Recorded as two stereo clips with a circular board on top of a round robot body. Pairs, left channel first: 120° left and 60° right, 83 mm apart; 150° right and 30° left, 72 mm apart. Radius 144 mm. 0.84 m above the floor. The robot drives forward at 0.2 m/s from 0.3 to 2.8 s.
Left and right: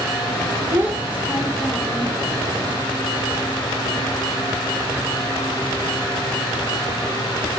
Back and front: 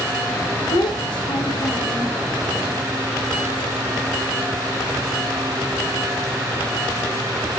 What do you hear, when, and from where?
0.7 s a child speaking: 130° right, 0.6 m; by 2.2 s 145° right, 0.8 m